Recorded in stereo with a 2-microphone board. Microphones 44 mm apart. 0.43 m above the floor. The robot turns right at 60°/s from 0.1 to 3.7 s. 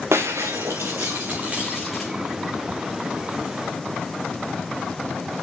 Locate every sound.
0.1 s breaking glass: 110° right, 3 m; by 2.1 s 10° left, 3 m